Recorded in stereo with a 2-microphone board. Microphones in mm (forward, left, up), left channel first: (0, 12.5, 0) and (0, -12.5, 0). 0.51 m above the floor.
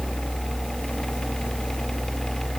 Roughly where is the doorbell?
No doorbell in this recording.